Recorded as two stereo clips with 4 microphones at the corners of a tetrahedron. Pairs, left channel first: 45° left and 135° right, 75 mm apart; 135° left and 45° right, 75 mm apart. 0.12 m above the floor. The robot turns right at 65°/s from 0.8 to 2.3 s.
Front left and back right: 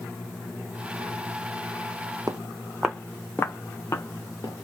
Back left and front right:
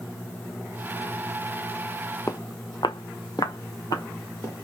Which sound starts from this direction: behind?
Footsteps, at 2.3 s.